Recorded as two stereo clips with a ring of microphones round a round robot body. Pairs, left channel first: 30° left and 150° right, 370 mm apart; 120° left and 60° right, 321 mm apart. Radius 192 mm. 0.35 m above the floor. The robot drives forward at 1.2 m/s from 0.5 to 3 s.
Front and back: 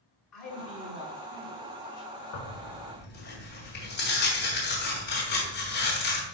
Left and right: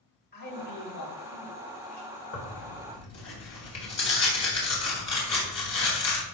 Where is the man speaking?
60° left, 4 m; by 2.1 s 95° left, 3.5 m.